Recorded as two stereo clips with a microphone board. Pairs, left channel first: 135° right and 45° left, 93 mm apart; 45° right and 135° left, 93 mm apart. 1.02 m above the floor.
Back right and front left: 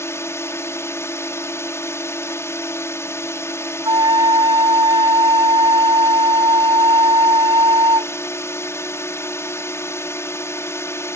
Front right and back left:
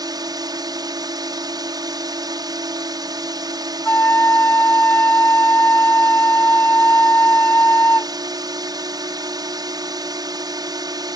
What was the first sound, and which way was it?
A drone, 170° left.